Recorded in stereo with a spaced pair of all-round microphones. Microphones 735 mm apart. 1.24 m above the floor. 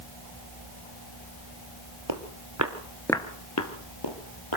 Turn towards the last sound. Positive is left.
turn(degrees=40)  # may be behind; listen again after turning